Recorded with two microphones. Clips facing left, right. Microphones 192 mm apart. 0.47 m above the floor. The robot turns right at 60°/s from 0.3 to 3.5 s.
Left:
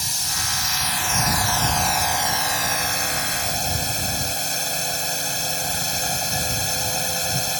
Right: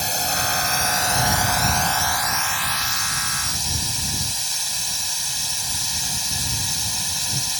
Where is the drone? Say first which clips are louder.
Right 9 dB; 90° right; by 7.6 s 100° left.